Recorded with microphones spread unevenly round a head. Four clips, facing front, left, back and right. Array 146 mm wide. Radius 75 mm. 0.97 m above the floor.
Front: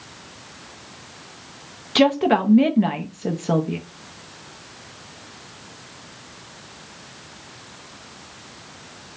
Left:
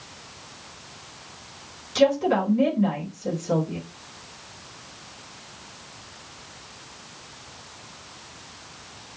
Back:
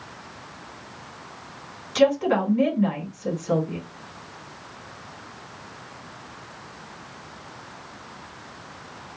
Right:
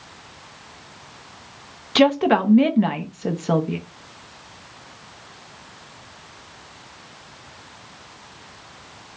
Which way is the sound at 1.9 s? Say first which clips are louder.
Right 3 dB, front 2 dB; 45° right.